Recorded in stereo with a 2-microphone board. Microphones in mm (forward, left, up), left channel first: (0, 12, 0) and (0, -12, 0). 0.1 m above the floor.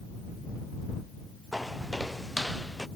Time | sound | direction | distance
1.5 | footsteps | 5° right (ahead or behind) | ?